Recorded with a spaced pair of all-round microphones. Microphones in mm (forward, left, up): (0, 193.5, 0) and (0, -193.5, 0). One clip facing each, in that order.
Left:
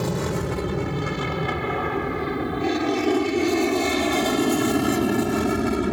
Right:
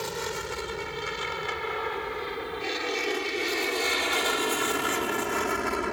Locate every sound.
0.0 s an aircraft: 70° left (ahead or behind); by 5.9 s 50° left (ahead or behind)